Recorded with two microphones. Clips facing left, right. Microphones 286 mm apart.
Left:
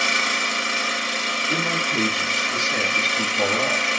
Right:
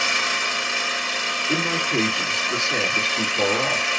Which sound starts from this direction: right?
A man speaking, at 1.5 s.